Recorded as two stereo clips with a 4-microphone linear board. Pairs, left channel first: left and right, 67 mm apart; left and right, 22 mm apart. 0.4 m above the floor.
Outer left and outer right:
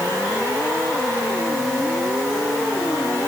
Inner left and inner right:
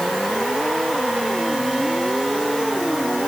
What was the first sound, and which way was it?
Only background noise.